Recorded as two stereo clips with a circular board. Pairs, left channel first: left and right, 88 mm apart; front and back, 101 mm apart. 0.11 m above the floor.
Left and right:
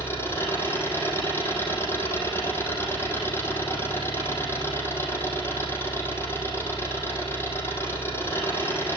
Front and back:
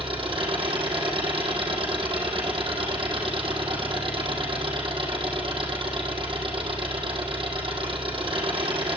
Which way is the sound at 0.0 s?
150° left.